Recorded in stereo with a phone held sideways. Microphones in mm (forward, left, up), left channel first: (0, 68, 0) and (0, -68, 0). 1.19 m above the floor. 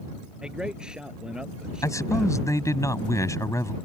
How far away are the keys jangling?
No keys jangling in this recording.